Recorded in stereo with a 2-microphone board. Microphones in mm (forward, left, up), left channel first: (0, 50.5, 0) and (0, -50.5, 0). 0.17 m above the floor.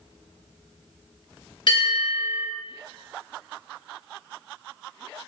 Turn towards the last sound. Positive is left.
turn(degrees=55)  # may be behind; listen again after turning